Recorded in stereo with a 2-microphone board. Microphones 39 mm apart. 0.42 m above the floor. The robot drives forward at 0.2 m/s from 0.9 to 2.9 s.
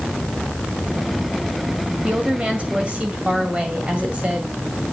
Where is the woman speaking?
30° right (ahead or behind), 2 m.